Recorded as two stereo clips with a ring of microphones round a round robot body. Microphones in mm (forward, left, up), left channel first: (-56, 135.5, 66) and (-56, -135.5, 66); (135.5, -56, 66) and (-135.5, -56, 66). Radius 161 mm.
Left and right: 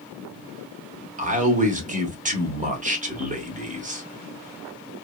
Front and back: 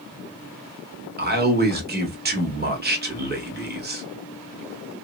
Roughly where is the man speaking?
Behind right.